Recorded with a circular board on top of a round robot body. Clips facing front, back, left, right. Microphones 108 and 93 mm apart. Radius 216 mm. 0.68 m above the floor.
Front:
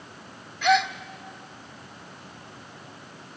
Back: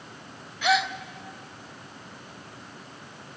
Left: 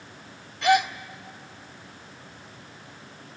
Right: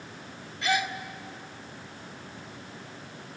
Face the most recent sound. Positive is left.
turn(degrees=95)